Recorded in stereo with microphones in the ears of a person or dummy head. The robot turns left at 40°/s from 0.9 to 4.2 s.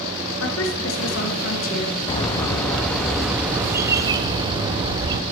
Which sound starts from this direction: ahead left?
A bird, at 2.1 s.